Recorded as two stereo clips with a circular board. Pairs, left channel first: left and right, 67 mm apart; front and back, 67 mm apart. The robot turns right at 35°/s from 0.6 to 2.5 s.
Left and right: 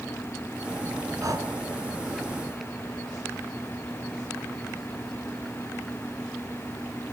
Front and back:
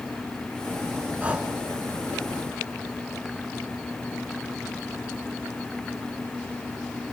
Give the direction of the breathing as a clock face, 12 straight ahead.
4 o'clock.